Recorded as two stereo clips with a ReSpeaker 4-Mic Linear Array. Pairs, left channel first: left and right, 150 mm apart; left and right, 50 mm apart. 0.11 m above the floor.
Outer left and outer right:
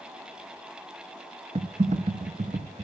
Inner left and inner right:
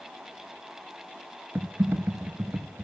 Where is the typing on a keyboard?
50° right (ahead or behind), 0.5 m.